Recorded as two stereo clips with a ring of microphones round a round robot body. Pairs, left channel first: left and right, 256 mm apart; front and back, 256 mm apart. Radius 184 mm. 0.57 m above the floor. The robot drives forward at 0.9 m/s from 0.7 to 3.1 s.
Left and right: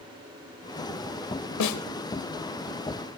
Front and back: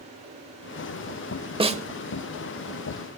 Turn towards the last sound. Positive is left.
turn(degrees=140)